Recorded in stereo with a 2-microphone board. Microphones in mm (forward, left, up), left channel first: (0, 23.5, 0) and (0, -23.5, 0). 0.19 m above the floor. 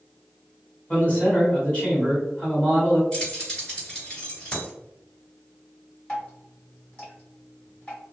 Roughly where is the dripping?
Left.